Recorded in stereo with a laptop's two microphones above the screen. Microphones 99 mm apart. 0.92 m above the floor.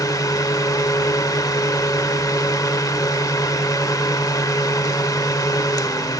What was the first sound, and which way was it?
A fan, 35° left (ahead or behind).